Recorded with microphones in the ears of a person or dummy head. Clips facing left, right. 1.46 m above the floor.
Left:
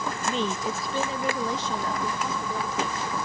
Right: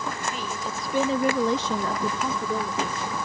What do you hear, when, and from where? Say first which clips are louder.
0.2 s a woman speaking: left 4 dB; 30° left (ahead or behind), 0.9 m; by 3.1 s 65° right (ahead or behind), 1.9 m